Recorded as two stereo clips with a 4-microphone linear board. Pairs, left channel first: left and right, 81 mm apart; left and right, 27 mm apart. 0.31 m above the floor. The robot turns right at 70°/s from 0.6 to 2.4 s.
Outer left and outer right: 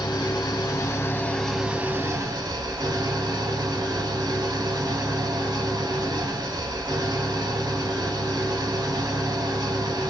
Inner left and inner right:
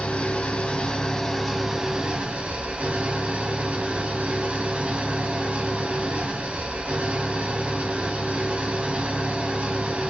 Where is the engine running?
115° left, 0.7 m; by 10.1 s 120° right, 0.7 m.